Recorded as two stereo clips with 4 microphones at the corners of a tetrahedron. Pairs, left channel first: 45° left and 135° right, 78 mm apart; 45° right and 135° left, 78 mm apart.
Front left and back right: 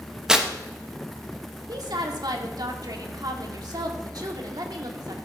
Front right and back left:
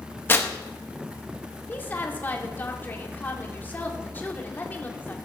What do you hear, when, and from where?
0.3 s tearing paper: 60° right, 1.1 m
1.7 s a woman speaking: 110° right, 1.8 m